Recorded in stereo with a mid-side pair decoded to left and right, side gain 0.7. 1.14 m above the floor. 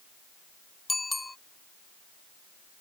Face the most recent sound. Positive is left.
turn(degrees=10)